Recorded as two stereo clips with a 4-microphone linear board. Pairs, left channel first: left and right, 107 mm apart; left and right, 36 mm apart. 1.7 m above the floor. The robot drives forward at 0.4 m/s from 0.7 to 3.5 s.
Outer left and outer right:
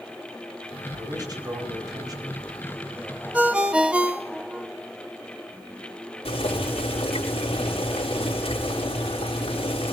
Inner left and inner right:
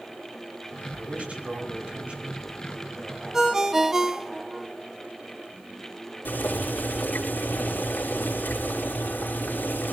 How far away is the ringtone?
About 0.9 m.